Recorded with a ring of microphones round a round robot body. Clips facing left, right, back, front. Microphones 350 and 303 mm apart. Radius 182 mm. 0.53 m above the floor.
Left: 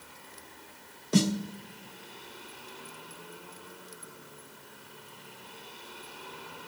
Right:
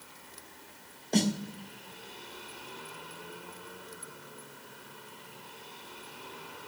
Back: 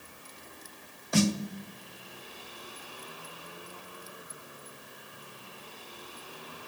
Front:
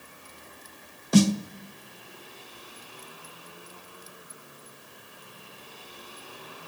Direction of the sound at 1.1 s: 20° left.